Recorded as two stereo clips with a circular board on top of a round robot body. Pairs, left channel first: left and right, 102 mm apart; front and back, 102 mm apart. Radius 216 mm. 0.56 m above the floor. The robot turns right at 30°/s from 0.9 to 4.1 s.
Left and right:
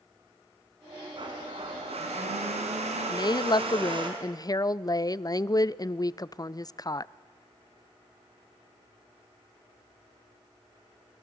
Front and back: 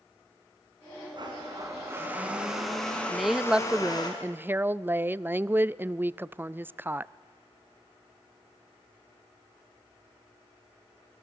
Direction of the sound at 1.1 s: 135° right.